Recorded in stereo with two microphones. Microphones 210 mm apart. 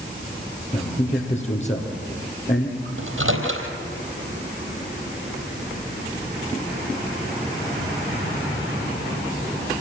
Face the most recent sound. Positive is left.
turn(degrees=-75)  # may be behind; listen again after turning